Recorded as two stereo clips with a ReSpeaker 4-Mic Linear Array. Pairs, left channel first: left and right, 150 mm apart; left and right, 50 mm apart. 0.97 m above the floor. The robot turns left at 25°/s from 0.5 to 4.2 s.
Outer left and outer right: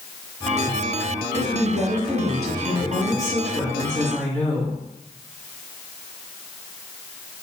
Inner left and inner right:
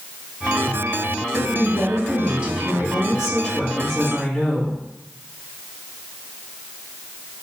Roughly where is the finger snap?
I don't hear a finger snap.